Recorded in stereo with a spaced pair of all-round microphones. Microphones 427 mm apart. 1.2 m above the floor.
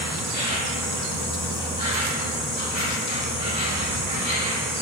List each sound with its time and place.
0.0 s an insect: 20° left (ahead or behind), 2.5 m